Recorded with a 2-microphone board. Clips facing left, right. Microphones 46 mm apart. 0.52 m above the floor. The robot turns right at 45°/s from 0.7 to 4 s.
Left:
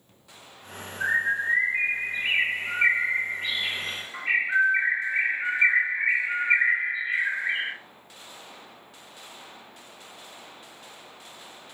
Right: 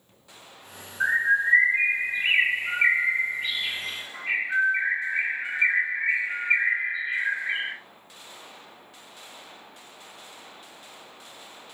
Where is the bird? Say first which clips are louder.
Right 3 dB; 95° right, 1.4 m; by 7.7 s 40° left, 1.4 m.